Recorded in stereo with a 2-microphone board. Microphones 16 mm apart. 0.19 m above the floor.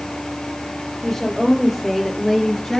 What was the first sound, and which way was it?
A woman speaking, 15° left (ahead or behind).